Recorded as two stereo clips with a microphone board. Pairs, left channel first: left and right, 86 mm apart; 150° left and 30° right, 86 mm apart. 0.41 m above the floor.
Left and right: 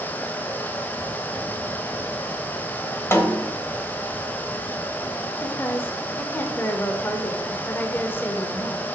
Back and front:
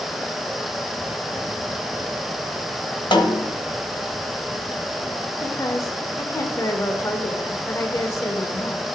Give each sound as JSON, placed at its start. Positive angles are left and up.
{"t": 3.1, "sound": "a snare drum", "azimuth_deg": 150, "distance_m": 1.2}
{"t": 5.4, "sound": "a woman speaking", "azimuth_deg": 135, "distance_m": 1.2}